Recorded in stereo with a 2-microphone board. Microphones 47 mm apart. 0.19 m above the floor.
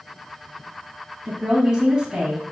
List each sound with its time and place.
1.2 s a woman speaking: 20° right (ahead or behind), 1.1 m